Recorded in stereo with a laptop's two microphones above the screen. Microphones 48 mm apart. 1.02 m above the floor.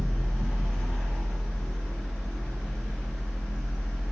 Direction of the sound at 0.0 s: 10° left (ahead or behind).